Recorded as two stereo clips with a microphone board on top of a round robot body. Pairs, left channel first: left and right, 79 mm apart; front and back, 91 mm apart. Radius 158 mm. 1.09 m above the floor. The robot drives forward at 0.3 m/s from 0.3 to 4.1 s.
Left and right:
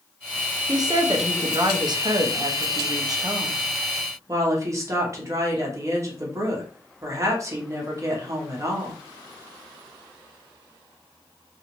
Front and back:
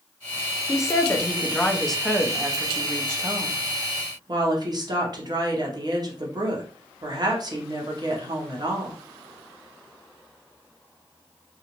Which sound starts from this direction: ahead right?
A woman speaking, at 0.7 s.